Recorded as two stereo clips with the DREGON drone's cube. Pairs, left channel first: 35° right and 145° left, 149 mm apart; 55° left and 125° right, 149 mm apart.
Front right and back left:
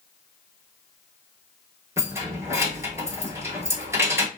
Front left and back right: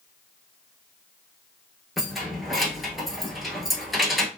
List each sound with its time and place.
2.0 s keys jangling: 150° left, 0.8 m